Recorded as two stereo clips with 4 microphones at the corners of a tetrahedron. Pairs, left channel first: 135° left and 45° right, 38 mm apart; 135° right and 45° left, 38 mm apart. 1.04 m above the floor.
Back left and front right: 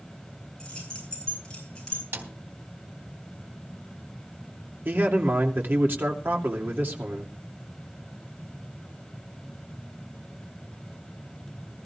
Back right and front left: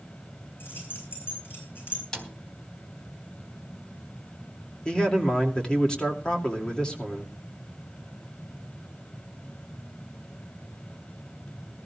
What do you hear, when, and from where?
0.6 s keys jangling: 160° right, 9 m
2.1 s a snare drum: 60° right, 3 m
4.8 s a man speaking: 70° right, 2.5 m